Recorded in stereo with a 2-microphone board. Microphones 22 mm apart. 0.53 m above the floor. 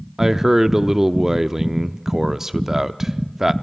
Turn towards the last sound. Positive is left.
turn(degrees=-15)  # may be behind; listen again after turning